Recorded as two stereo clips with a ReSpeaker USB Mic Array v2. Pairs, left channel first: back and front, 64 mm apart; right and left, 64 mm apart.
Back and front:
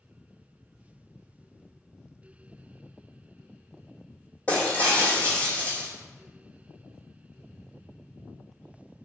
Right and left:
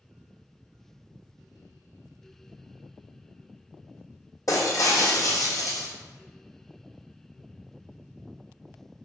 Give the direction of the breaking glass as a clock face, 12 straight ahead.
4 o'clock.